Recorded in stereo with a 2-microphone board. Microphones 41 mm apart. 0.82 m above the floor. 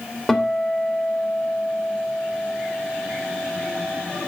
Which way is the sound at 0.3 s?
10° left (ahead or behind).